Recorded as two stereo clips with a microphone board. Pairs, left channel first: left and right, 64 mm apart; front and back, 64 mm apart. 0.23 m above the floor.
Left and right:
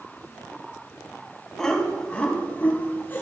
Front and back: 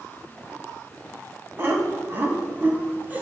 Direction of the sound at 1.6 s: 170° left.